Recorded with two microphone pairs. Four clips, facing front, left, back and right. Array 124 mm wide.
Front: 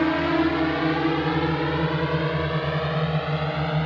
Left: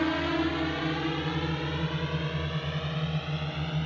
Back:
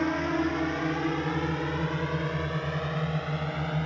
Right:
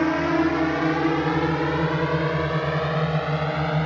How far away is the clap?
I don't hear a clap.